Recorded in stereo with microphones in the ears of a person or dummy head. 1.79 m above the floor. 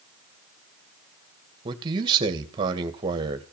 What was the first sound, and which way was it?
A man speaking, 25° right (ahead or behind).